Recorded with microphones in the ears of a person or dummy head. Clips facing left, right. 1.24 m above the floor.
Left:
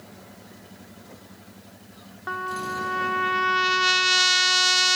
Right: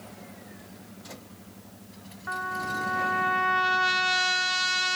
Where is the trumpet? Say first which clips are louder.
Left 3 dB; 60° left (ahead or behind), 0.8 m.